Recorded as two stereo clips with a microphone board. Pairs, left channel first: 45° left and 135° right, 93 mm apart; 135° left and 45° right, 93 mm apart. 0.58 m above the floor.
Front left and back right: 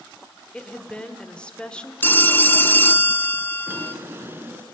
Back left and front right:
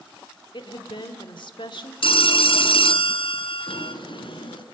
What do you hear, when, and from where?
0.5 s a woman speaking: 120° left, 1.5 m
2.0 s a phone ringing: 110° left, 0.7 m
3.7 s a drawer: 160° left, 1.8 m